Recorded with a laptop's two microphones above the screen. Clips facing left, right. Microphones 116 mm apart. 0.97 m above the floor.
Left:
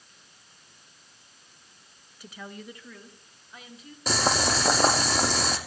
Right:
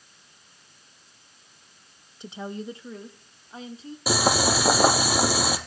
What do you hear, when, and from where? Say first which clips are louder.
2.2 s a woman speaking: right 7 dB; 25° right (ahead or behind), 0.8 m; by 4.0 s 30° right (ahead or behind), 2.5 m
4.1 s boiling: right 3 dB; 10° right (ahead or behind), 4.5 m